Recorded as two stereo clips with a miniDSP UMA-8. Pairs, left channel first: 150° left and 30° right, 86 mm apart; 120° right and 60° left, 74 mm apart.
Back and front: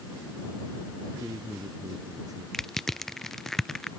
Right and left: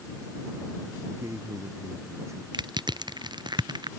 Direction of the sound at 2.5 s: 65° left.